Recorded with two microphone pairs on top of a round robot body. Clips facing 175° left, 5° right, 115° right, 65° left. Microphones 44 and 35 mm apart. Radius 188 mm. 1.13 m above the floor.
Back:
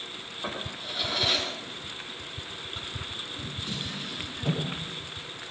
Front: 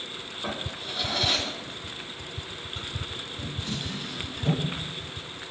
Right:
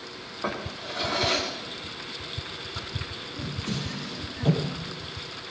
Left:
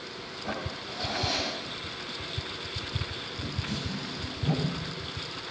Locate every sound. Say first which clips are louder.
0.4 s a drawer: front 1 dB, right 4 dB; 100° right, 9.5 m